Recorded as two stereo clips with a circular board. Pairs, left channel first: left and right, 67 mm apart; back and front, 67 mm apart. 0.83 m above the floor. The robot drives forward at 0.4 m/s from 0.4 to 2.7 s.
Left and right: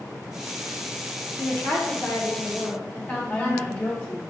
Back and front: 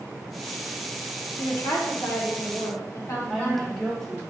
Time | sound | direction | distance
1.4 | a woman speaking | 150° left | 1.2 m
3.3 | a woman speaking | 110° left | 0.7 m